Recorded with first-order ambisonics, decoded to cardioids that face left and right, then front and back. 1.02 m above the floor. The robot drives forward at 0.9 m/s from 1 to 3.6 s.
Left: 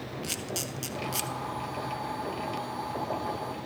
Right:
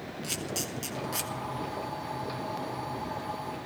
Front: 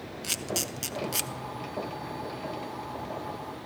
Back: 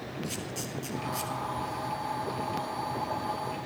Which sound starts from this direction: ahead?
A camera shutter, at 0.2 s.